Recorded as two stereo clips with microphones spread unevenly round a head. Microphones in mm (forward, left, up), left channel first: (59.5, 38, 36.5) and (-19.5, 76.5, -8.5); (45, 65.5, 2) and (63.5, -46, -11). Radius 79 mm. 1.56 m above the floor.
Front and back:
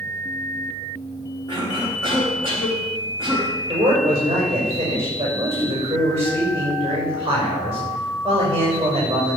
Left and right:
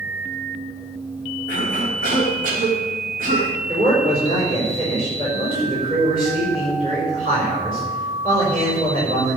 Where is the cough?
95° right, 4 m.